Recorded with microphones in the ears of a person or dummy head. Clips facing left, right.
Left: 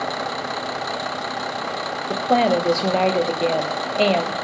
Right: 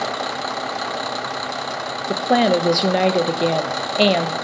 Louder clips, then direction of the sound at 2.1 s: Right 1 dB; 15° right (ahead or behind).